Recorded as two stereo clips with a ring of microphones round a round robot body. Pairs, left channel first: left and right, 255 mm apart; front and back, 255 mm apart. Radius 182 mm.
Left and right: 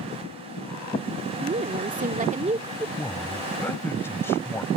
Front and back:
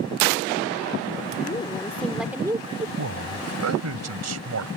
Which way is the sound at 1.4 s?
60° right.